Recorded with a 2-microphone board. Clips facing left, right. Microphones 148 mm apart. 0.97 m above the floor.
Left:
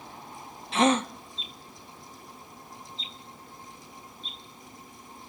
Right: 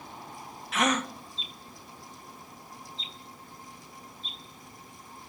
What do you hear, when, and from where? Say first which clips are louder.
0.7 s a gasp: left 5 dB; 30° left (ahead or behind), 0.7 m